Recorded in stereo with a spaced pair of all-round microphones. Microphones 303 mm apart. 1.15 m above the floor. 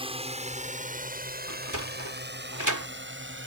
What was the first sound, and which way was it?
A drone, 20° right (ahead or behind).